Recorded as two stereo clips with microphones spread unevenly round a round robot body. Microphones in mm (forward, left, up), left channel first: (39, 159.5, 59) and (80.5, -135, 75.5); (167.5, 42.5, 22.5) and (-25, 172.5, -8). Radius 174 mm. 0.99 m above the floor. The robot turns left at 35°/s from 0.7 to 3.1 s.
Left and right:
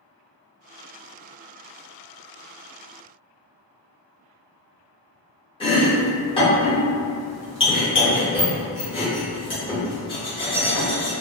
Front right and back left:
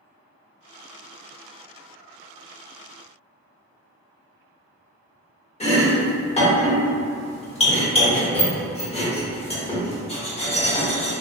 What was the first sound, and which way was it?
Chopping, 25° left.